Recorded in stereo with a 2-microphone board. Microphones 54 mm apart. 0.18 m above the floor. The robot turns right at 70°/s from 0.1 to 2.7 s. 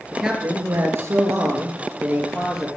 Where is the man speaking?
Straight behind, 2.5 m; by 2.7 s straight ahead, 2.5 m.